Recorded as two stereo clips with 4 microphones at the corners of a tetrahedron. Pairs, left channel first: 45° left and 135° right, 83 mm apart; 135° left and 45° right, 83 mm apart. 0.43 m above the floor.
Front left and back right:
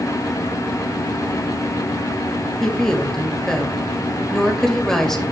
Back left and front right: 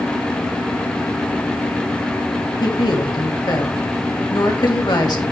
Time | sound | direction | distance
2.6 | a woman speaking | 130° left | 1.8 m